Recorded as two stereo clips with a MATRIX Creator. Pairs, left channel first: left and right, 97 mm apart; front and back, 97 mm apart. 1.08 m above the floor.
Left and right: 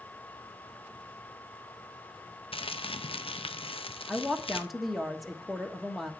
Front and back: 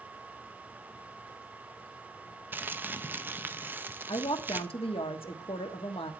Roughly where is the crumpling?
Left.